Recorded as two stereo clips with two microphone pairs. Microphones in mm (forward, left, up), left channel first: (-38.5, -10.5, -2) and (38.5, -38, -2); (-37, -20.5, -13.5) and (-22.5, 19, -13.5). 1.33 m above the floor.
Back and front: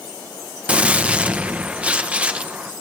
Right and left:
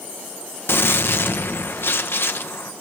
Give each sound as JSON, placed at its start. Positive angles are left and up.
{"t": 0.7, "sound": "a gunshot", "azimuth_deg": -95, "distance_m": 1.3}